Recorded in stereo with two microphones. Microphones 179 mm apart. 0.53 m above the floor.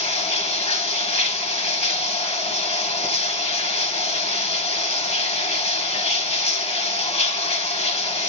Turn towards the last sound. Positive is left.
turn(degrees=35)  # may be behind; listen again after turning